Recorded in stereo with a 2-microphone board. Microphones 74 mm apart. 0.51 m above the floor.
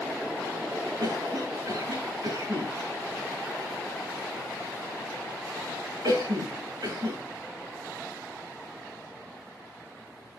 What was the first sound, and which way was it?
A cough, 70° right (ahead or behind).